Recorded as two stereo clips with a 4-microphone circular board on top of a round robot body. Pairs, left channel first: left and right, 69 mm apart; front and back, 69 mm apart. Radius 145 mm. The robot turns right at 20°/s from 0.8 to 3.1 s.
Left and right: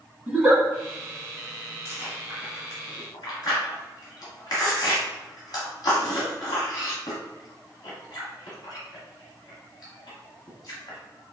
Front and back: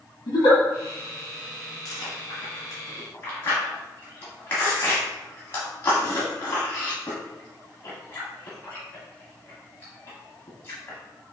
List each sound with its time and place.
0.3 s a giggle: 5° right, 1.8 m
1.9 s chewing: 35° left, 1.0 m; by 11.0 s 60° left, 1.0 m